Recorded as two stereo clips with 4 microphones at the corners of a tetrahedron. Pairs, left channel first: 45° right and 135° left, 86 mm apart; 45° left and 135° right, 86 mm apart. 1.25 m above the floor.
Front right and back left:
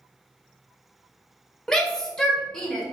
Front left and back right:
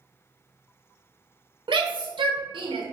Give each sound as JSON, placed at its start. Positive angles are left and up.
{"t": 1.7, "sound": "a shout", "azimuth_deg": -130, "distance_m": 1.1}